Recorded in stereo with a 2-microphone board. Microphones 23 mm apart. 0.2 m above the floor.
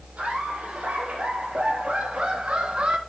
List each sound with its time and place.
0.2 s laughter: 80° right, 6 m; by 3.0 s 50° right (ahead or behind), 1.7 m